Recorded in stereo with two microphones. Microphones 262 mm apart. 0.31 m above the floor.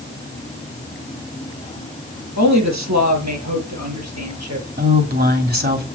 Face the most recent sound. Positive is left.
turn(degrees=-35)  # may be behind; listen again after turning